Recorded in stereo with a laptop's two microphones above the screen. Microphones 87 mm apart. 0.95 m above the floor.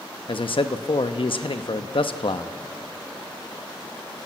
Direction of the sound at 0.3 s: 70° left (ahead or behind).